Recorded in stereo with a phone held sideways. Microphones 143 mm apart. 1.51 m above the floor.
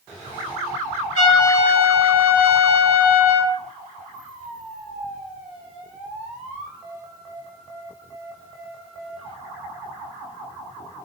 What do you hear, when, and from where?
1.1 s a trumpet: 40° right (ahead or behind), 1.1 m